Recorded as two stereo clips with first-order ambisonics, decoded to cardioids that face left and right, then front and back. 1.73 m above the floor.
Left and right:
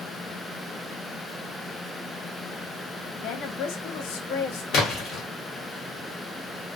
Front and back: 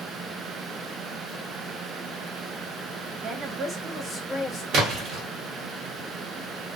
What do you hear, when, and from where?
3.2 s a woman speaking: 125° left, 0.7 m; by 4.6 s 70° left, 0.9 m
4.7 s a splash: 135° left, 1.1 m